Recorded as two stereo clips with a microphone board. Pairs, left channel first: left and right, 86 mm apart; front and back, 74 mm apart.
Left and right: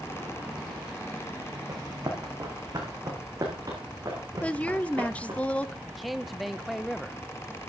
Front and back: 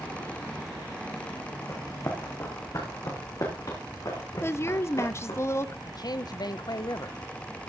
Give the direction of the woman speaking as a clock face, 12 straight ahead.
11 o'clock.